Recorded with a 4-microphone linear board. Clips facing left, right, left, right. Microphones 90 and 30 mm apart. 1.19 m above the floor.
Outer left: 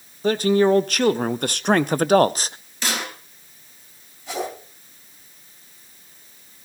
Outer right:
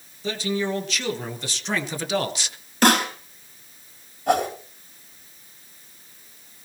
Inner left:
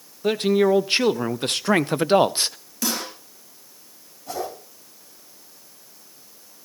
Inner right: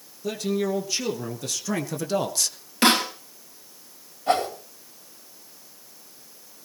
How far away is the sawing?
I don't hear sawing.